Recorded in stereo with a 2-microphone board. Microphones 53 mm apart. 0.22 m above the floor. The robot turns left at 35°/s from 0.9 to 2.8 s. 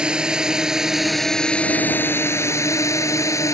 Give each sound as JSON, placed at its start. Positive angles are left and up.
{"t": 0.0, "sound": "a drone", "side_deg": -15}